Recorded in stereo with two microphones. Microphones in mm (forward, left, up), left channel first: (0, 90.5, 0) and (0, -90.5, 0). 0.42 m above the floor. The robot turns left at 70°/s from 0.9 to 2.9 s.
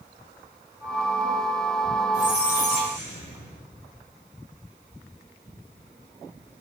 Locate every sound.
2.1 s a squeak: 165° right, 1.9 m; by 3.6 s 140° left, 1.9 m